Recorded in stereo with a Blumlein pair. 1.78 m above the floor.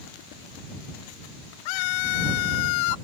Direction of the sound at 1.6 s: 45° left.